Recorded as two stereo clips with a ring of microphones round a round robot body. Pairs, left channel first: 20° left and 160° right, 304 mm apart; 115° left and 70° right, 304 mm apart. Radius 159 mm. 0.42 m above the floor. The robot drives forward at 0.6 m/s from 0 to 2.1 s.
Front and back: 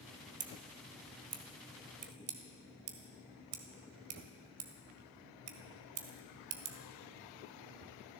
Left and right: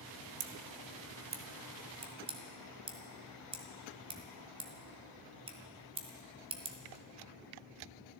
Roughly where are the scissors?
Right.